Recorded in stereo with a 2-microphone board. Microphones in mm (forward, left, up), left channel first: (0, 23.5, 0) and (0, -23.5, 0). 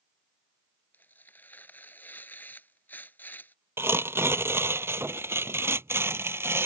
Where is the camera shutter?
No camera shutter in this recording.